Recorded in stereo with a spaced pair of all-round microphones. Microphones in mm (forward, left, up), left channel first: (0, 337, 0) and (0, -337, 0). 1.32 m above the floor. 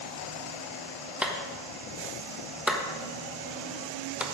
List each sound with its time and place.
1.2 s a clap: centre (ahead or behind), 1.2 m